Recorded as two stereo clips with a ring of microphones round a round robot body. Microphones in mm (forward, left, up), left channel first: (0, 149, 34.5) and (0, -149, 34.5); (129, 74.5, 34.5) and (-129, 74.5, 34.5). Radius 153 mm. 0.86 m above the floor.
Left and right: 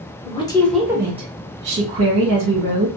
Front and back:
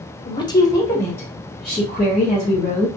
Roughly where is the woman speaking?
Ahead left.